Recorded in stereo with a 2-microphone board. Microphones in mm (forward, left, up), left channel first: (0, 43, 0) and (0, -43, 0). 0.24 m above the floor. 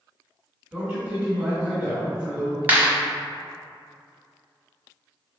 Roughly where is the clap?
Right.